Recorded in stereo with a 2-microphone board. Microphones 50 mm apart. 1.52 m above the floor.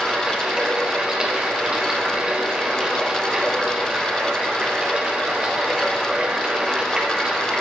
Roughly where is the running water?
Centre.